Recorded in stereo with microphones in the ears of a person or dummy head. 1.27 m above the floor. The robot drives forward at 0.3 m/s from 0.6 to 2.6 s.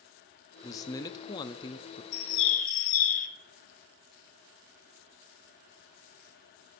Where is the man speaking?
15° left (ahead or behind), 0.7 m; by 2.0 s 25° left (ahead or behind), 0.5 m.